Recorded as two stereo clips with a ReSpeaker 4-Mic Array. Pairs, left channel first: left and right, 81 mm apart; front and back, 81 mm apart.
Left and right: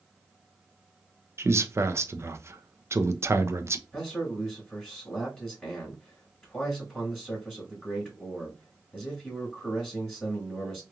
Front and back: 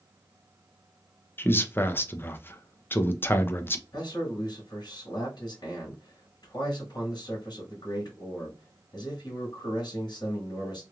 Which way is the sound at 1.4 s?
50° right.